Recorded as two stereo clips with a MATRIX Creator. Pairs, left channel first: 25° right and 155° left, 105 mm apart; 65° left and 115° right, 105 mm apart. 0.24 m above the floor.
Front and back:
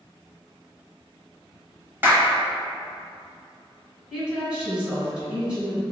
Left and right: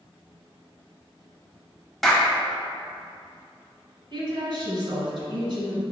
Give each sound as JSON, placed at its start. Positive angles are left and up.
{"t": 2.0, "sound": "a clap", "azimuth_deg": 155, "distance_m": 0.9}
{"t": 4.1, "sound": "a woman speaking", "azimuth_deg": -125, "distance_m": 1.8}